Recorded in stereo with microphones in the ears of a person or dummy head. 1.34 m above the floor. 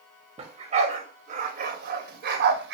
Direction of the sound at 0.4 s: 30° right (ahead or behind).